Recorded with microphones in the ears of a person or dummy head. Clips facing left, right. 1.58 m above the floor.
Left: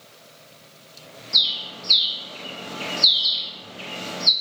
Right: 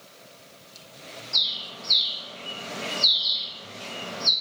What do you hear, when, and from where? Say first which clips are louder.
1.3 s a bird: left 3 dB; 40° left (ahead or behind), 0.6 m